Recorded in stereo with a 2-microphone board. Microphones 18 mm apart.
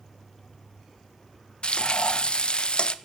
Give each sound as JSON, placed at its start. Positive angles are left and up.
{"t": 1.6, "sound": "frying", "side_deg": 55, "distance_m": 0.9}